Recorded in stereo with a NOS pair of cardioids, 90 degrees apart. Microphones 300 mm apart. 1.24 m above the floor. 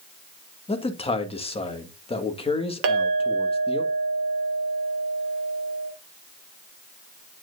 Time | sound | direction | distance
0.7 | a man speaking | 20° left | 1.8 m
2.8 | a clink | 45° right | 1.4 m